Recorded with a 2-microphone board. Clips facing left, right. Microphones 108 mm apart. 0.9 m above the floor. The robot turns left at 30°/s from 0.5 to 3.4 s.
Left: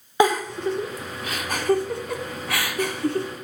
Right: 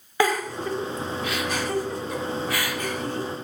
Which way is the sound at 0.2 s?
20° left (ahead or behind).